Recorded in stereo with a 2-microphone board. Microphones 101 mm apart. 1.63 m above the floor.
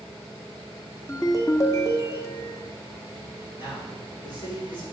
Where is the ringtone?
30° left (ahead or behind), 1.2 m.